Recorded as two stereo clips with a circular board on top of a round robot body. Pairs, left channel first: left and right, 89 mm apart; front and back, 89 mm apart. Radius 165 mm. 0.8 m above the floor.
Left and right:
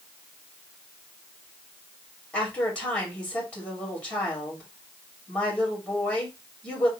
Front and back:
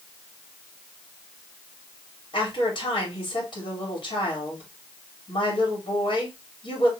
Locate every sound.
2.3 s a woman speaking: 20° left, 2.5 m